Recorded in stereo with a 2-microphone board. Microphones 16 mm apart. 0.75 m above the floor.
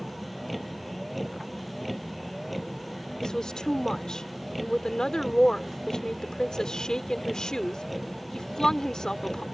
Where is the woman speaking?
45° left (ahead or behind).